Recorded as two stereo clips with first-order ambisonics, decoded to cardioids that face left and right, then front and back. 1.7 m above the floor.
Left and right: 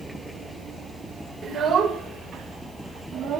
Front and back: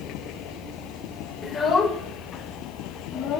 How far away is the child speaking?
About 1.0 m.